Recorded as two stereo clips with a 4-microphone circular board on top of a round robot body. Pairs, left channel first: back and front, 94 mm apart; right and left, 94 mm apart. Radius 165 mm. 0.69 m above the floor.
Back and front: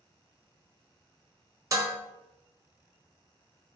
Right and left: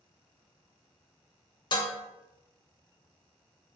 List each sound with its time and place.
1.7 s dishes clattering: 55° right, 0.5 m